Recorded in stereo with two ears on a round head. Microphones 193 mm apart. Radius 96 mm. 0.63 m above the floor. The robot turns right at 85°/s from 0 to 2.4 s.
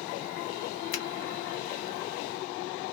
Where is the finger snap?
60° left (ahead or behind), 0.8 m; by 1.1 s 55° left (ahead or behind), 0.8 m.